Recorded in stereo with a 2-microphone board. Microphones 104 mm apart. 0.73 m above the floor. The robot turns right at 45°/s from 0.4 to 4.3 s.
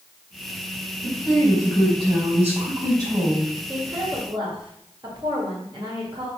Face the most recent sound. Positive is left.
turn(degrees=-50)  # may be behind; listen again after turning